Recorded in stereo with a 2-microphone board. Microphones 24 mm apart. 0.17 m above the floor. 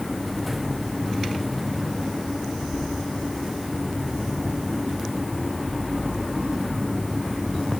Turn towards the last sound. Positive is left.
No sound to turn to.